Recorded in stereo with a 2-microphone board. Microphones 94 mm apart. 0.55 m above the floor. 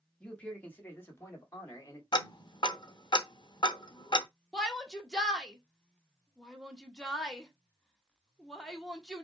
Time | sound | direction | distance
0.2 | a man speaking | 10° left (ahead or behind) | 1.3 m
2.1 | ticking | 50° left (ahead or behind) | 0.6 m
4.5 | a shout | 5° left (ahead or behind) | 1.2 m